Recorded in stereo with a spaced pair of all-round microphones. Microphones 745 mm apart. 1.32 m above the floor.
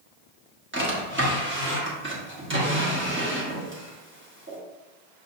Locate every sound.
0.7 s a drawer: 15° right (ahead or behind), 1.1 m